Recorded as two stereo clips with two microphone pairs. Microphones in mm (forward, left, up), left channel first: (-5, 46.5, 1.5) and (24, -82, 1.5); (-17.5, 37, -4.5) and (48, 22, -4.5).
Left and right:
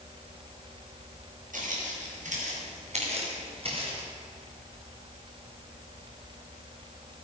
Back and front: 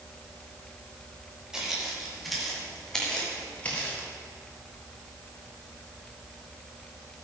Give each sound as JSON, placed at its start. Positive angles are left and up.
{"t": 1.5, "sound": "footsteps", "azimuth_deg": -95, "distance_m": 6.0}